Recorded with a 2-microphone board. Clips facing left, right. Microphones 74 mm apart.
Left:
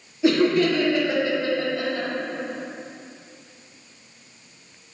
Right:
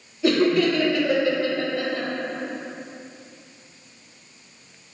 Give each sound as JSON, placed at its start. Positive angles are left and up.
{"t": 0.2, "sound": "laughter", "side_deg": 20, "distance_m": 1.1}